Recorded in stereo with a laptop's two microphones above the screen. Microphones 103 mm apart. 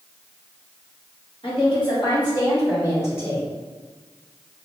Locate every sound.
1.4 s a woman speaking: 55° left (ahead or behind), 1.4 m; by 3.5 s 20° left (ahead or behind), 2 m